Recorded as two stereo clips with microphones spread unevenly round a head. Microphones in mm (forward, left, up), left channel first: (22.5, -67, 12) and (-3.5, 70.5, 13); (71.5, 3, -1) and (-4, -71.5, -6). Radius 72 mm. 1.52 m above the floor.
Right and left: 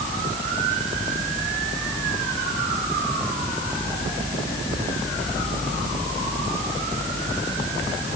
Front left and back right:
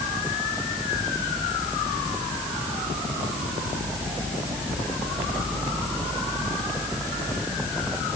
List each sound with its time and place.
Only background noise.